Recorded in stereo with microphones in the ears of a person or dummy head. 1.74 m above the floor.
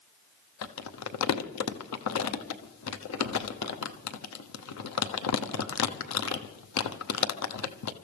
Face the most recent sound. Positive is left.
turn(degrees=85)